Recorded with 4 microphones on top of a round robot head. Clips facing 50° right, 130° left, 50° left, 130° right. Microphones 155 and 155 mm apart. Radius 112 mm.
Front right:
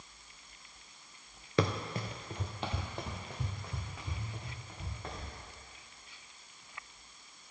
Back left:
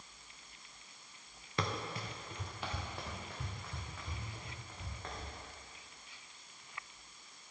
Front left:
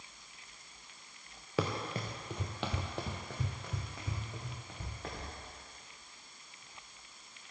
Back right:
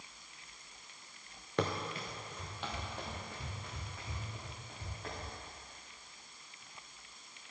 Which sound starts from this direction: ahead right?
Running footsteps, at 1.6 s.